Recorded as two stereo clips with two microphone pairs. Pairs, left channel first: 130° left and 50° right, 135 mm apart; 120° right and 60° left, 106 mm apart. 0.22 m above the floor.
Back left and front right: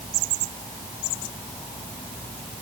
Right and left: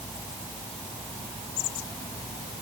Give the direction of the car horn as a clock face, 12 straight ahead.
No car horn in this recording.